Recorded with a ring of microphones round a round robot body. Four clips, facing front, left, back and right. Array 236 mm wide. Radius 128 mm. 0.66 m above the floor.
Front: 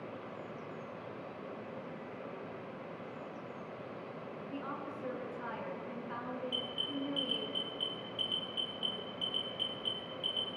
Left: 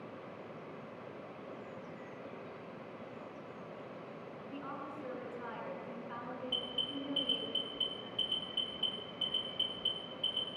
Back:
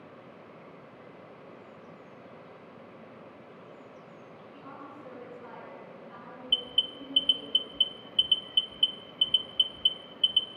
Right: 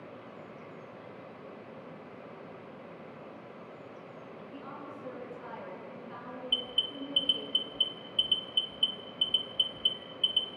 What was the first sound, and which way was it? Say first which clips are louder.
A woman speaking: left 1 dB, front 4 dB; 15° left.